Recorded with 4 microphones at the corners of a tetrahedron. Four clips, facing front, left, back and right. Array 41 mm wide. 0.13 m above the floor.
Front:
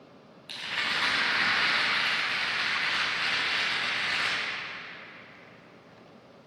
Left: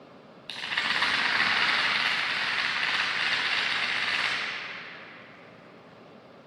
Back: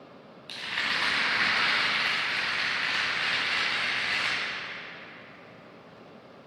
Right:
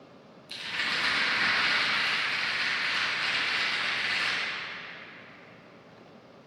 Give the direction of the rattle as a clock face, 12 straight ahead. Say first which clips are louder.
Left 2 dB, even; 9 o'clock.